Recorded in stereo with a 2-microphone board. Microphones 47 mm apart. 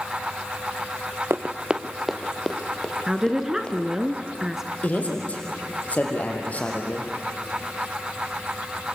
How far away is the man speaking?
About 3.5 m.